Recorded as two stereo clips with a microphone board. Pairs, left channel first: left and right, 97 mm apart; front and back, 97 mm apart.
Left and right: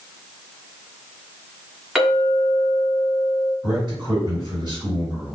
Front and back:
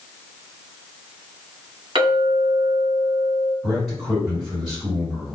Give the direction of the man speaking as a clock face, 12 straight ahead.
3 o'clock.